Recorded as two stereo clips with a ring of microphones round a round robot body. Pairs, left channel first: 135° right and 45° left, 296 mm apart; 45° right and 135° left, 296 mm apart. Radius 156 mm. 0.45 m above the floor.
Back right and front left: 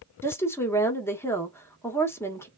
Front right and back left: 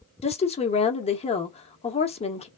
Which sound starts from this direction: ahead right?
A woman speaking, at 0.2 s.